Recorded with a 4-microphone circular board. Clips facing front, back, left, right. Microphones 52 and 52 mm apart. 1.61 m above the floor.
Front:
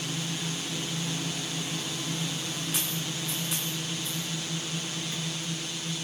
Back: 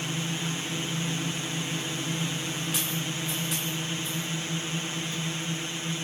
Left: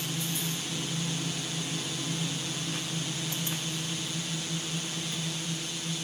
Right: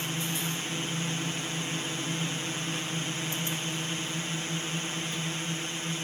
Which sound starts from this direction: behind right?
A drone, at 0.0 s.